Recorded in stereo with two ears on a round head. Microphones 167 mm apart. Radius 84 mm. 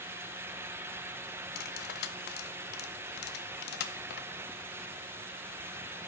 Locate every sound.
1.6 s cutlery clinking: 55° left (ahead or behind), 0.8 m